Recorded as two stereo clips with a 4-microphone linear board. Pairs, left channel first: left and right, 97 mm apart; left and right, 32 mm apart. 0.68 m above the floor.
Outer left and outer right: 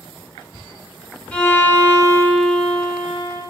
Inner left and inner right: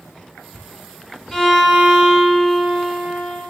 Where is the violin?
10° left (ahead or behind), 1.6 m.